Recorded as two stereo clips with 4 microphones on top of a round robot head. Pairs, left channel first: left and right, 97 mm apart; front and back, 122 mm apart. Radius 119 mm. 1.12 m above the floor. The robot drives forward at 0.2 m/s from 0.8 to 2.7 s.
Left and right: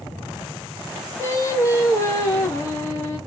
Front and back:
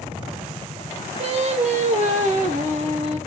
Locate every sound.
1.2 s singing: 150° left, 1.3 m; by 3.2 s 155° left, 1.6 m